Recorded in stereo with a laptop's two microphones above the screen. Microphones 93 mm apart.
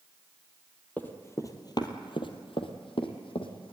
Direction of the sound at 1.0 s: 20° left (ahead or behind).